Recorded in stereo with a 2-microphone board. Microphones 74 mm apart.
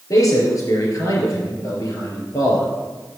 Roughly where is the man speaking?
Left.